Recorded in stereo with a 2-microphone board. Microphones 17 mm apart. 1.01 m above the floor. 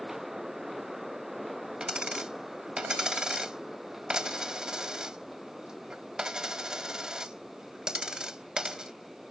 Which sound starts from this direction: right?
A dropped coin, at 1.8 s.